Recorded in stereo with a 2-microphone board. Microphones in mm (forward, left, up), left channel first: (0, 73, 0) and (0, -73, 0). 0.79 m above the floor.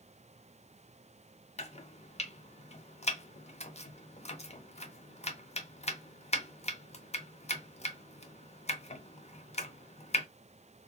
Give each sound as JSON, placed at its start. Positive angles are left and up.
{"t": 1.6, "sound": "chopping", "side_deg": 50, "distance_m": 0.6}